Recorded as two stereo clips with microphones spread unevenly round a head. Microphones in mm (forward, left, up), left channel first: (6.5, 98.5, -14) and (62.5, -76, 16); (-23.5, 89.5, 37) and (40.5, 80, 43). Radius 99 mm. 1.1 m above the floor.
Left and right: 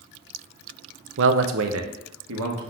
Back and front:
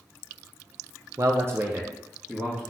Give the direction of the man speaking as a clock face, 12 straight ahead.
2 o'clock.